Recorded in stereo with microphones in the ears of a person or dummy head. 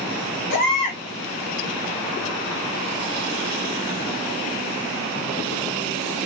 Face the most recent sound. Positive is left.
turn(degrees=60)  # may be behind; listen again after turning